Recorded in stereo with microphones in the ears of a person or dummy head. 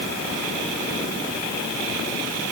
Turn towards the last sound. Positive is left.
No sound to turn to.